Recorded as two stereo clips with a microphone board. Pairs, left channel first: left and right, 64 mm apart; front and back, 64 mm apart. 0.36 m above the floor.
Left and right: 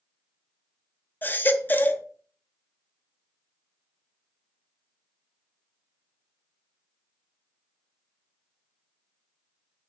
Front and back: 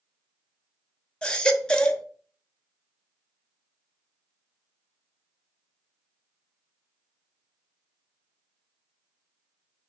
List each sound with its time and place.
1.2 s a baby crying: 65° left, 0.7 m